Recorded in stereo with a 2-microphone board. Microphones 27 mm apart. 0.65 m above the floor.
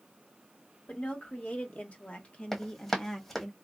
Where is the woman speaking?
60° left (ahead or behind), 1.8 m; by 3.5 s 10° left (ahead or behind), 0.9 m.